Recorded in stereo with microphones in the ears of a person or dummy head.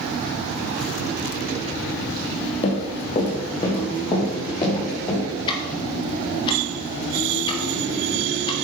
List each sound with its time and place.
2.6 s running footsteps: 30° left (ahead or behind), 3 m; by 5.2 s 20° left (ahead or behind), 5 m
5.5 s ticking: 30° left (ahead or behind), 1.8 m